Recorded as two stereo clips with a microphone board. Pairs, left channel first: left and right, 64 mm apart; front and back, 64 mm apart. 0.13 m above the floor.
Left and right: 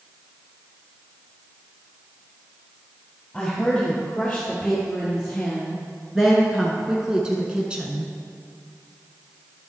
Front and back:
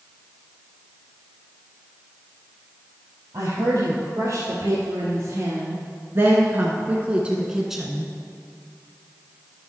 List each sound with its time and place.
3.3 s a woman speaking: 175° left, 2.5 m; by 8.1 s 70° right, 1.1 m